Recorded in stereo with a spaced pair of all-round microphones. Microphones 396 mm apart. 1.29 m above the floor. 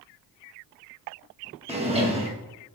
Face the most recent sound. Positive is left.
turn(degrees=-15)  # may be behind; listen again after turning